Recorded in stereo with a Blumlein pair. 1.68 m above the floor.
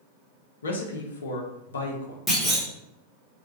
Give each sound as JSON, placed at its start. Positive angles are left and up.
{"t": 0.6, "sound": "a man speaking", "azimuth_deg": 65, "distance_m": 0.5}
{"t": 2.3, "sound": "a clunk", "azimuth_deg": 10, "distance_m": 1.0}